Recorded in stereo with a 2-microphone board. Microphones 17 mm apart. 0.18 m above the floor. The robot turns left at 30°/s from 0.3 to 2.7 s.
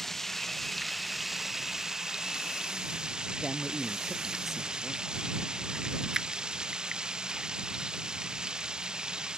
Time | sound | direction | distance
0.0 | running water | 15° left | ?
3.4 | a man speaking | 15° right (ahead or behind) | ?
6.1 | a finger snap | 40° right (ahead or behind) | ?